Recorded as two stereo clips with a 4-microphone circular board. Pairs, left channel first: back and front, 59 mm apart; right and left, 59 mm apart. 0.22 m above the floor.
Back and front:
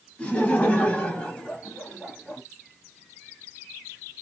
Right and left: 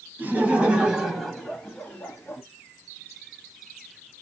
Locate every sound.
0.2 s laughter: 125° left, 1.2 m; by 2.4 s 105° right, 1.1 m